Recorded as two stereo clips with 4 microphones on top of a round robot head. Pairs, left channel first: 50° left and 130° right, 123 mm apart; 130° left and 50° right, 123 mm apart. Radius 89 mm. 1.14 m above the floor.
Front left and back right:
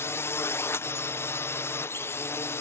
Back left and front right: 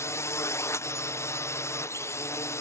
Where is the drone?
95° left.